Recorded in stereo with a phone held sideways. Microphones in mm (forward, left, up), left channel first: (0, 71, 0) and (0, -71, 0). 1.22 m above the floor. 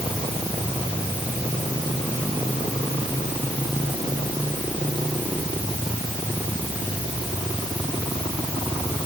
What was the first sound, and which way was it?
Only background noise.